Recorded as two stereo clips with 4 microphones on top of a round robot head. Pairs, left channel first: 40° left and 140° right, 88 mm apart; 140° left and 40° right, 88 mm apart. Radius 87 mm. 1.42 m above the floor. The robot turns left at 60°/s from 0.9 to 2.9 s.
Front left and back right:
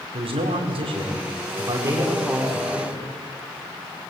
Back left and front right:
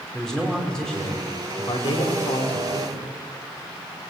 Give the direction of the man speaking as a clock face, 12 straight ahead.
5 o'clock.